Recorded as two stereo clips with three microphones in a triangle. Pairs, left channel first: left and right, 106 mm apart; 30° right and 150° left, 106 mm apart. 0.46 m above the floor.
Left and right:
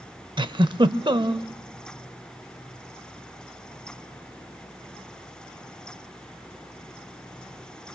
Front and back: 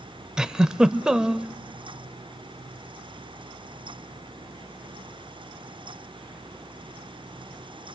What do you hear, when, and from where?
0.4 s a giggle: 125° right, 0.6 m